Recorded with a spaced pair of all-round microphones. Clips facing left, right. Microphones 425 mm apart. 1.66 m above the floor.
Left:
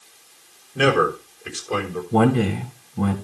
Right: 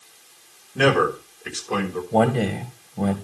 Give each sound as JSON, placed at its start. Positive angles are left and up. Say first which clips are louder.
{"t": 0.8, "sound": "a man speaking", "louder": "even", "side_deg": -5, "distance_m": 6.5}
{"t": 2.1, "sound": "a man speaking", "louder": "left 3 dB", "side_deg": 20, "distance_m": 2.0}